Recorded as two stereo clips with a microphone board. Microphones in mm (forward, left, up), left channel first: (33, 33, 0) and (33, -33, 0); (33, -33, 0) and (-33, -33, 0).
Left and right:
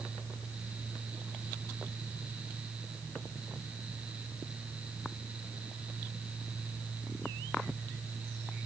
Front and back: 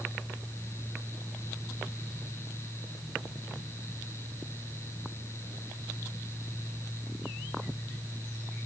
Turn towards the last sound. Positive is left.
No sound to turn to.